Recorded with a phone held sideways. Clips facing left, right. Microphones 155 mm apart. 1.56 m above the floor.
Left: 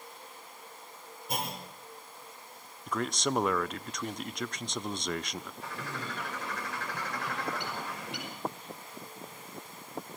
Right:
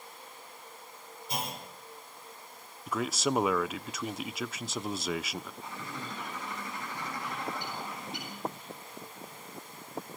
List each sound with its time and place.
1.3 s a clunk: 55° left (ahead or behind), 4.5 m
2.9 s a man speaking: 5° right (ahead or behind), 0.5 m
5.6 s a bird: 80° left, 5.5 m